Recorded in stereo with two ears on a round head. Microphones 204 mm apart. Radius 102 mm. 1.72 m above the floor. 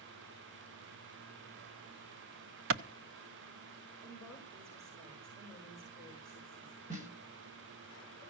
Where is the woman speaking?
80° right, 6 m.